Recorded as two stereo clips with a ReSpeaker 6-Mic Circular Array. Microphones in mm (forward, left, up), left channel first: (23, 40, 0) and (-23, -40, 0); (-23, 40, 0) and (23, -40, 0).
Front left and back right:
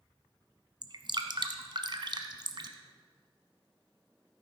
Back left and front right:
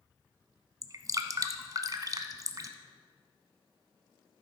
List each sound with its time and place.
0.8 s dripping: 100° right, 0.9 m